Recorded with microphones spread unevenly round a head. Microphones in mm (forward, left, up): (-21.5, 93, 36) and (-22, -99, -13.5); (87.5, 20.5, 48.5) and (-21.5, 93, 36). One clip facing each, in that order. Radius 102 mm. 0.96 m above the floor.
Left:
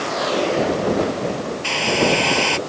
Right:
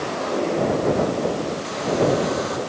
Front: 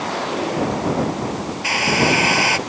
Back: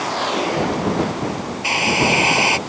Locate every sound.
1.6 s a hair dryer: 80° left